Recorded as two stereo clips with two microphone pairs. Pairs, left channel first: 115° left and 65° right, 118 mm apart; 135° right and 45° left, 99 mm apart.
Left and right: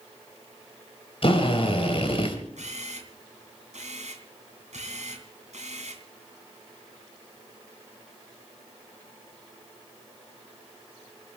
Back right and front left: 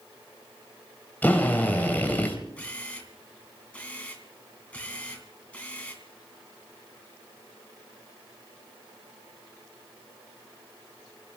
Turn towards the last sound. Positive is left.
turn(degrees=-60)